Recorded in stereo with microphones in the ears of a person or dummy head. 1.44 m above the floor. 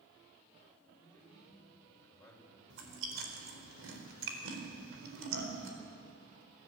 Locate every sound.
1.0 s a man speaking: centre (ahead or behind), 5.5 m; by 2.6 s 5° left (ahead or behind), 5 m
2.7 s chewing: 75° right (ahead or behind), 4 m